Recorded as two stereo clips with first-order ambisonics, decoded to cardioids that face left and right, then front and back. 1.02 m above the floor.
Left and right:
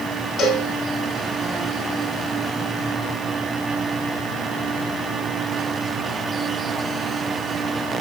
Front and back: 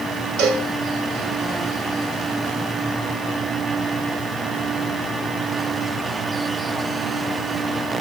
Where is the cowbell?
145° left, 4 m.